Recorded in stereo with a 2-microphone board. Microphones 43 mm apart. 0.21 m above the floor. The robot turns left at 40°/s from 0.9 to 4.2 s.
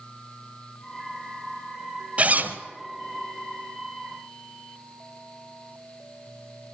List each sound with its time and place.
2.2 s a zipper: 30° right (ahead or behind), 1.0 m; by 2.6 s 50° right (ahead or behind), 1.0 m